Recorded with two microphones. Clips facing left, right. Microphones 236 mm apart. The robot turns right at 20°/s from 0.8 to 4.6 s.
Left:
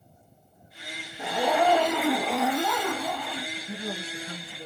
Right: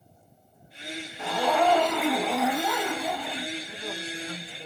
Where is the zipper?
160° left, 0.7 m; by 3.5 s 155° right, 0.7 m.